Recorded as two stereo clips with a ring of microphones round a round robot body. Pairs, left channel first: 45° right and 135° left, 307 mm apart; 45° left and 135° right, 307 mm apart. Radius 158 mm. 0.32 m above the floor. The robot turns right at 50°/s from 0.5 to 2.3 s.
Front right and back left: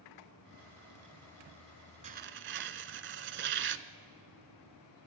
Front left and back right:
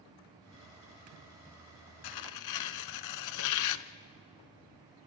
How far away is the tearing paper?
About 0.6 m.